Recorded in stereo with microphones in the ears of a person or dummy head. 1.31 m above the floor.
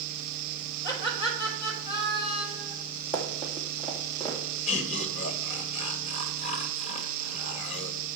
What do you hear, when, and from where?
0.8 s laughter: 20° left (ahead or behind), 4 m
3.1 s running footsteps: 5° left (ahead or behind), 2.5 m; by 4.4 s 5° right (ahead or behind), 3.5 m
4.7 s laughter: 35° left (ahead or behind), 1.5 m